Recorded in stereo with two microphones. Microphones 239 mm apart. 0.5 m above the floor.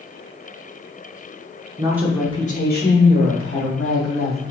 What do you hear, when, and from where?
1.8 s a woman speaking: 25° right (ahead or behind), 0.8 m; by 4.4 s 65° left (ahead or behind), 3 m